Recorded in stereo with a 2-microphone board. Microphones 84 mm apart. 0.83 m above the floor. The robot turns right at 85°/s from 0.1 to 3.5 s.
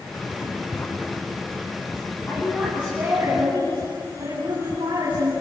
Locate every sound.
0.3 s writing: 15° right (ahead or behind), 4 m; by 2.2 s 40° left (ahead or behind), 4 m
2.3 s a woman speaking: 150° left, 8.5 m; by 5.3 s 105° right, 8.5 m